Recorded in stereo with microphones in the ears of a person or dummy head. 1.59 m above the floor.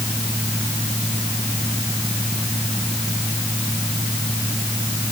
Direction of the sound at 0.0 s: 10° right (ahead or behind).